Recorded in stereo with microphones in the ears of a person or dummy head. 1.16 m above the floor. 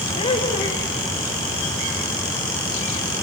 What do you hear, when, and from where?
0.2 s laughter: 25° left (ahead or behind), 1.4 m